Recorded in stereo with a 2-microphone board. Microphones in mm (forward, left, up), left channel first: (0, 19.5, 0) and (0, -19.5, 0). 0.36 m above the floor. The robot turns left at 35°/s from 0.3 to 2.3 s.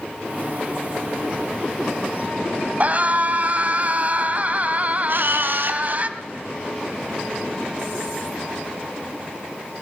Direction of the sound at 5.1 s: 60° right (ahead or behind).